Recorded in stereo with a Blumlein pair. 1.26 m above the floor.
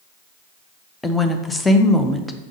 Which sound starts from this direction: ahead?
A woman speaking, at 1.0 s.